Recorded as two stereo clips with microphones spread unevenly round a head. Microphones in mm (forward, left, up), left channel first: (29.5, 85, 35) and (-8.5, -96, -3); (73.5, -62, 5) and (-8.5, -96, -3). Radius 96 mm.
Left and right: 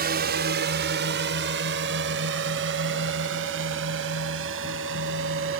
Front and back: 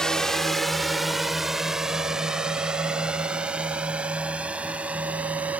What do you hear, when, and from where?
0.0 s a drone: 60° right; by 5.6 s 80° right